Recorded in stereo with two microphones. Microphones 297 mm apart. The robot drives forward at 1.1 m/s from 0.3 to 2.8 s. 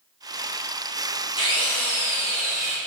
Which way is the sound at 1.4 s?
15° left (ahead or behind).